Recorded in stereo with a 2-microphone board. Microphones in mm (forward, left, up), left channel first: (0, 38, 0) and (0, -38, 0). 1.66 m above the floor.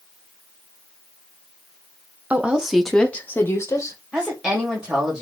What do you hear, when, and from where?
2.3 s a woman speaking: 20° right (ahead or behind), 0.8 m; by 4.0 s 45° left (ahead or behind), 1.1 m
4.1 s a woman speaking: 10° right (ahead or behind), 2.5 m